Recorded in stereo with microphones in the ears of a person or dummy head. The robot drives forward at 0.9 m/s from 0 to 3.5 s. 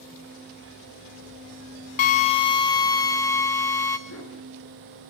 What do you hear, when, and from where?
2.0 s a drill: 35° left (ahead or behind), 0.7 m; by 4.0 s 15° left (ahead or behind), 1.6 m
4.1 s a dog barking: 80° left, 7 m